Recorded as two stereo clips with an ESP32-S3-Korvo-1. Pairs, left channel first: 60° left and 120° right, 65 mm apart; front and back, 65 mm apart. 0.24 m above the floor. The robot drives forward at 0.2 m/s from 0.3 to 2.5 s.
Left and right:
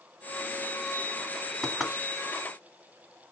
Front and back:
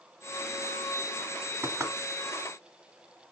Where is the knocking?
155° left, 1.6 m.